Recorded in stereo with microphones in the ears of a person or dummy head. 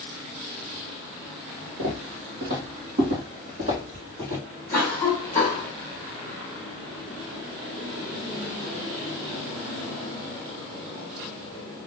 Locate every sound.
1.8 s footsteps: 55° right (ahead or behind), 2 m; by 4.4 s 25° right (ahead or behind), 3 m
4.7 s a cough: 15° left (ahead or behind), 3.5 m